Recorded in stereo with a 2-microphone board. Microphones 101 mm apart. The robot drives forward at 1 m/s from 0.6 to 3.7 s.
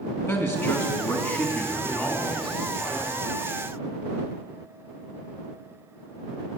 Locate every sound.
0.3 s a man speaking: 25° left (ahead or behind), 1.9 m; by 3.1 s 10° left (ahead or behind), 4 m